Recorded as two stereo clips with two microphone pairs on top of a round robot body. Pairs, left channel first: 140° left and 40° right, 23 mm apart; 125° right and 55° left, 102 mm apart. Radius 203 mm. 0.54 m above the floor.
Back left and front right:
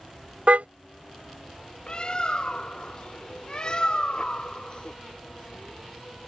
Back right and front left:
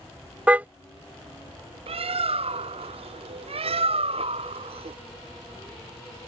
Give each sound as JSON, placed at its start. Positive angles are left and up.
{"t": 0.5, "sound": "a car horn", "azimuth_deg": -20}
{"t": 1.9, "sound": "a bird", "azimuth_deg": 85}